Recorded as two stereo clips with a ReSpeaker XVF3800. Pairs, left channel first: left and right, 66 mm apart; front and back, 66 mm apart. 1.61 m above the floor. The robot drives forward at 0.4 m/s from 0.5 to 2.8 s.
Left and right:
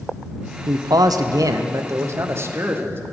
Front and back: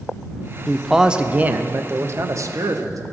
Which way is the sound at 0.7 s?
85° right.